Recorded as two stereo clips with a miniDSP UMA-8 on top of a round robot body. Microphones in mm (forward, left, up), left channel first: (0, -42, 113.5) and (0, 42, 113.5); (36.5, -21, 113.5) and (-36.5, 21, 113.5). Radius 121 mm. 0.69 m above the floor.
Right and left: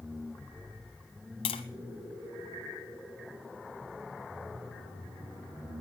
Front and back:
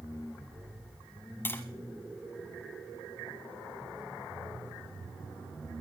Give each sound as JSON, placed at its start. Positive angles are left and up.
{"t": 1.4, "sound": "tapping", "azimuth_deg": -95, "distance_m": 0.8}